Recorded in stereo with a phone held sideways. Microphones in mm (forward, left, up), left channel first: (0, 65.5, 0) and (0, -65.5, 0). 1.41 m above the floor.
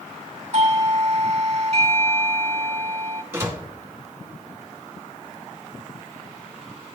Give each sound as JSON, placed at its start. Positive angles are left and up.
{"t": 0.5, "sound": "a doorbell", "side_deg": -50, "distance_m": 1.6}
{"t": 3.3, "sound": "a door slam", "side_deg": -15, "distance_m": 1.8}